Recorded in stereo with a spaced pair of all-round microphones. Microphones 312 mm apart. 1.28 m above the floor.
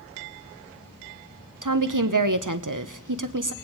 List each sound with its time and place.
1.6 s a woman speaking: 65° right (ahead or behind), 1.0 m